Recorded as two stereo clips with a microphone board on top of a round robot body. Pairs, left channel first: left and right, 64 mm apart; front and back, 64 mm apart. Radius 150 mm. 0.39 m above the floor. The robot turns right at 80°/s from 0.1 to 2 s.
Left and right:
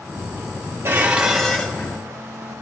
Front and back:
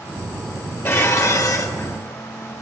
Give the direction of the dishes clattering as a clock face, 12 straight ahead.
1 o'clock.